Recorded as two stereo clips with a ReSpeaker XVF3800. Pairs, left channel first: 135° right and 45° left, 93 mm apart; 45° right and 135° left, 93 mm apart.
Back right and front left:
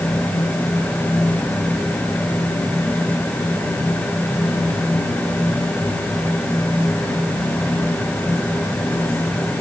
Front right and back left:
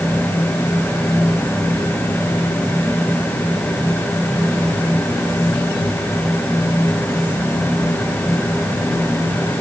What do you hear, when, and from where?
Only background noise.